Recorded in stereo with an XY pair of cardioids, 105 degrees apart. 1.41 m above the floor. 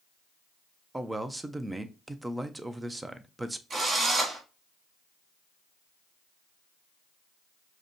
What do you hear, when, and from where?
0.9 s a man speaking: 15° right, 0.6 m
3.7 s a drill: 30° right, 1.2 m